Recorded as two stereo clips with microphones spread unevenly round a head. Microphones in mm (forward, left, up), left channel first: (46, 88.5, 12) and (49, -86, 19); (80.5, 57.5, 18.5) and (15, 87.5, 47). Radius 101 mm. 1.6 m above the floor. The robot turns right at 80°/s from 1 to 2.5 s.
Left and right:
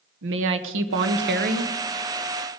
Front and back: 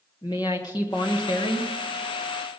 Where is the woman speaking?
90° right, 1.1 m; by 1.7 s 30° right, 1.1 m.